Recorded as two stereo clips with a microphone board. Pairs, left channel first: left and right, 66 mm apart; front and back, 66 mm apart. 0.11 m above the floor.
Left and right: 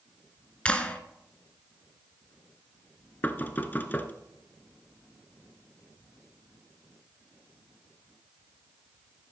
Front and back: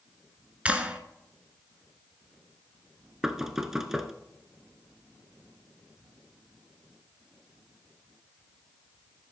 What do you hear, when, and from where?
0.7 s a clap: 135° left, 0.9 m
3.2 s knocking: 105° left, 0.8 m